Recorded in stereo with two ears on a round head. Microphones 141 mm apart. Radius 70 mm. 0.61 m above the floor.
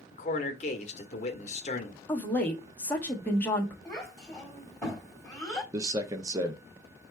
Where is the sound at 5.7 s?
20° right (ahead or behind), 0.6 m.